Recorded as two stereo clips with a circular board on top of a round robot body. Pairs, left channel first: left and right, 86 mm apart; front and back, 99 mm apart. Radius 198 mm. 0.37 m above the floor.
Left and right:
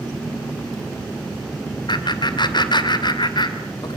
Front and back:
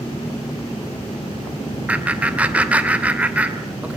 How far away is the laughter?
About 2.5 m.